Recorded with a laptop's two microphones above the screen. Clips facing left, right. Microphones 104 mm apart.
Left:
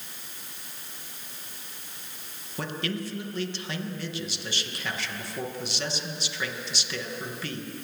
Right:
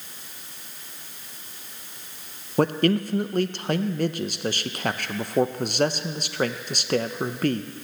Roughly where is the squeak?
I don't hear a squeak.